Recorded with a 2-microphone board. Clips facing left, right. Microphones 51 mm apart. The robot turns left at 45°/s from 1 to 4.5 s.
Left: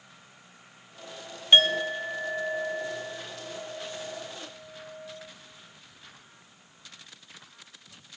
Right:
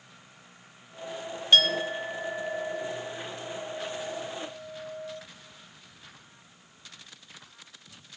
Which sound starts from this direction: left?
A clink, at 1.5 s.